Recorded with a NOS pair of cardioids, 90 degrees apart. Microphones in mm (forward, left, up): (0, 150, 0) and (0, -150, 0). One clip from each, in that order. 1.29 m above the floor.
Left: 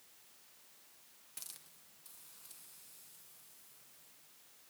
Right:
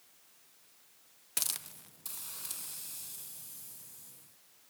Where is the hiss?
70° right, 0.5 m.